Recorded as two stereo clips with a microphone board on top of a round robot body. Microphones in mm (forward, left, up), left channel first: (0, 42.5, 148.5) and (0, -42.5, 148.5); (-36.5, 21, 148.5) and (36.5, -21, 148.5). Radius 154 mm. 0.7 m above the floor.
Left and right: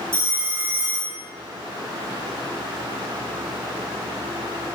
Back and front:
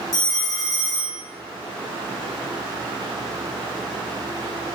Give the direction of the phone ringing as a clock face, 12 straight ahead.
5 o'clock.